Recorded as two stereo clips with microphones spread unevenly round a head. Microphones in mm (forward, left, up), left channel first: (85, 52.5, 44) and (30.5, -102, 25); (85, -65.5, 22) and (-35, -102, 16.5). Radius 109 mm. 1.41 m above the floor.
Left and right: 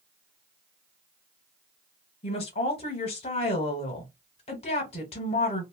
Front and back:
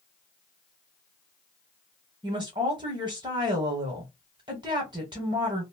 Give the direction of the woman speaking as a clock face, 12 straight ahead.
8 o'clock.